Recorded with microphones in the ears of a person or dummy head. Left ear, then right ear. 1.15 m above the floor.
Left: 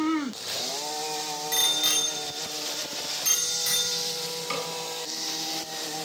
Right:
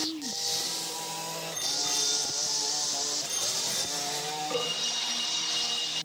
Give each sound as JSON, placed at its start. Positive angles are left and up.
{"t": 1.5, "sound": "a bicycle bell", "side_deg": 50, "distance_m": 3.0}
{"t": 4.5, "sound": "a snare drum", "side_deg": 70, "distance_m": 7.5}